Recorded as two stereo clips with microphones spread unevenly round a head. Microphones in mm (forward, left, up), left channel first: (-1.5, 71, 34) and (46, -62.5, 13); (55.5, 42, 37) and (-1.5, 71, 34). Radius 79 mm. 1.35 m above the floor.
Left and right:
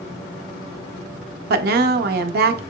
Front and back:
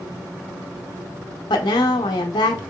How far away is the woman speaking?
About 0.6 m.